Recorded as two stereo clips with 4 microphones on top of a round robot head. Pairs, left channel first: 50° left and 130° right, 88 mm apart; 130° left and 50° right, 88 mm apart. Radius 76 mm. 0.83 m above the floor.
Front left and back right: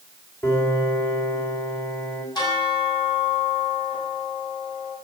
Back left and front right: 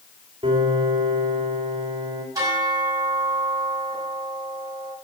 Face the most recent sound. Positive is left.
turn(degrees=5)